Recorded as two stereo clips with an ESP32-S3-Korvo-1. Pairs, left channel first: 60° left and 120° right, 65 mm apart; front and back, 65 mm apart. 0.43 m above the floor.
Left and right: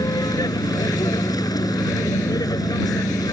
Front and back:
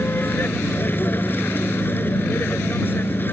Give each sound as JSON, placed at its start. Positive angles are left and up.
{"t": 0.0, "sound": "a vehicle", "azimuth_deg": 60}